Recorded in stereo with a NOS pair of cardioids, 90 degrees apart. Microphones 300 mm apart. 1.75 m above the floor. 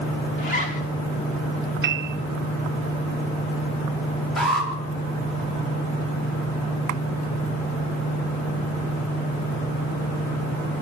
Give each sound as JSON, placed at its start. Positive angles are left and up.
{"t": 0.4, "sound": "a zipper", "azimuth_deg": 25, "distance_m": 3.5}
{"t": 1.8, "sound": "a piano", "azimuth_deg": -40, "distance_m": 1.0}
{"t": 4.4, "sound": "an alarm", "azimuth_deg": 0, "distance_m": 6.0}